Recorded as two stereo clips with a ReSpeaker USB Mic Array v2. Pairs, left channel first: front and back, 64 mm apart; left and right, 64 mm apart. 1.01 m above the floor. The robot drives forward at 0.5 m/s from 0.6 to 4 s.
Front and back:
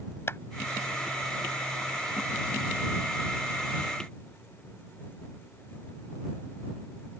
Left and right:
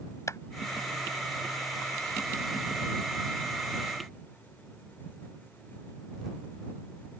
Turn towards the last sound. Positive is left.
turn(degrees=75)